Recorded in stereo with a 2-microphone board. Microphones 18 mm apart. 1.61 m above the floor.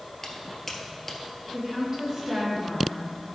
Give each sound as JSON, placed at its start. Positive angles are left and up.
{"t": 0.2, "sound": "footsteps", "side_deg": 20, "distance_m": 1.6}
{"t": 1.5, "sound": "a woman speaking", "side_deg": -25, "distance_m": 3.5}